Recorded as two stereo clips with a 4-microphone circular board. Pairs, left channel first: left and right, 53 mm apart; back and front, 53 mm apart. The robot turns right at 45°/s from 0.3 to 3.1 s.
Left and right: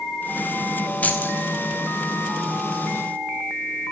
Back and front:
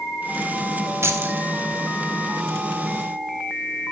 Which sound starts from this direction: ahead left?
Keys jangling, at 1.0 s.